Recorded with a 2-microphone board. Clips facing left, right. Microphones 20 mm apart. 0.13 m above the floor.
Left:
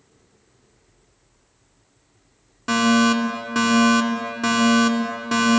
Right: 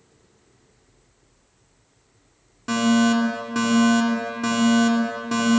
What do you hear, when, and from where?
2.7 s a fire alarm: 20° left (ahead or behind), 2.5 m